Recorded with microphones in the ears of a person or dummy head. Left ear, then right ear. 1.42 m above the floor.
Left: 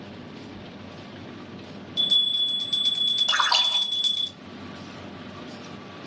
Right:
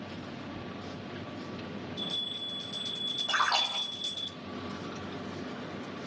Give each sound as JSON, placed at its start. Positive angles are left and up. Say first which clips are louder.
{"t": 0.5, "sound": "a bell", "louder": "even", "side_deg": 45, "distance_m": 0.7}
{"t": 3.3, "sound": "a splash", "louder": "left 3 dB", "side_deg": 55, "distance_m": 1.9}